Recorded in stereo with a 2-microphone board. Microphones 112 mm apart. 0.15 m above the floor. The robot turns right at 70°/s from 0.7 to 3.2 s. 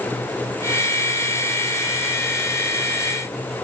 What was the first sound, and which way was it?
Only background noise.